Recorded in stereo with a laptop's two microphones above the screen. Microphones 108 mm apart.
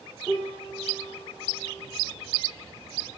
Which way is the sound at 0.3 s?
15° right (ahead or behind).